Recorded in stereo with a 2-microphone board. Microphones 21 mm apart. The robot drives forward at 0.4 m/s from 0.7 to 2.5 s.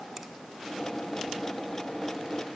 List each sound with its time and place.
0.2 s a finger snap: 15° right (ahead or behind), 1.1 m